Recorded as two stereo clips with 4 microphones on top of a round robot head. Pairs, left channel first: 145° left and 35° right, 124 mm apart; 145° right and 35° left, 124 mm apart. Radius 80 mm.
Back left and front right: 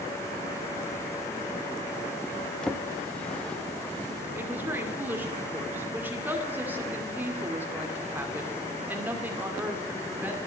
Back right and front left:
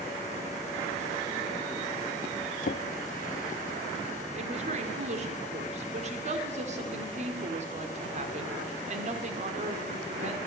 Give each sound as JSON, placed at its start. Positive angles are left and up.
{"t": 2.6, "sound": "a drawer", "azimuth_deg": -130, "distance_m": 0.7}
{"t": 4.3, "sound": "a woman speaking", "azimuth_deg": 40, "distance_m": 2.0}